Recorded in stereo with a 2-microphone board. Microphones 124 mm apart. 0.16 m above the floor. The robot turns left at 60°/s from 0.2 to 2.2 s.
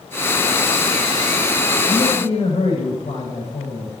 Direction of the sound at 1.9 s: 60° left (ahead or behind).